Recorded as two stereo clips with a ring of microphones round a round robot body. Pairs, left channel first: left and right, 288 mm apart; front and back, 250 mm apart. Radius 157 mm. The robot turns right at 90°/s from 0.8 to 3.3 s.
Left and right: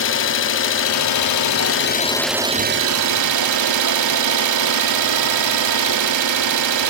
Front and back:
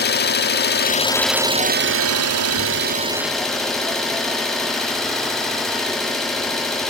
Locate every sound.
0.0 s an engine running: 45° left, 1.5 m; by 6.9 s 90° right, 1.5 m